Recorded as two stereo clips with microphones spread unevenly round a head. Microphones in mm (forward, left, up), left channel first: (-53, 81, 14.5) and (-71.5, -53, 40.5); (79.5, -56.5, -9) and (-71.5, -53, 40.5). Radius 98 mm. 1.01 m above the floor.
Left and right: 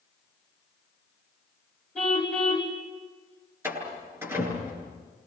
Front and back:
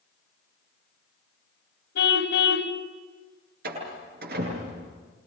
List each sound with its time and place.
1.9 s a car horn: 5° right, 3 m
3.6 s a door slam: 170° right, 9.5 m